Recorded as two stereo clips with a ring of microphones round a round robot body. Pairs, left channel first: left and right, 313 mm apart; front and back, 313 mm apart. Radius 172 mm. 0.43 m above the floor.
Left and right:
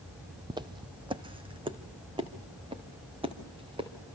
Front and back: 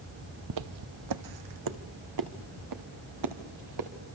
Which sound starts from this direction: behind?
Footsteps, at 0.5 s.